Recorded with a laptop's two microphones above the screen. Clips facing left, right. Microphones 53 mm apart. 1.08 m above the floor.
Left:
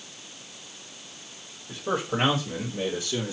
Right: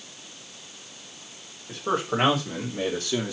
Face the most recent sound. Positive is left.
turn(degrees=-65)  # may be behind; listen again after turning